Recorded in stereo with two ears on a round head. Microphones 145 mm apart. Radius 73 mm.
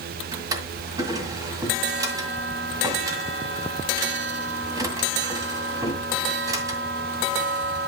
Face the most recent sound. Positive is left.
turn(degrees=-20)  # may be behind; listen again after turning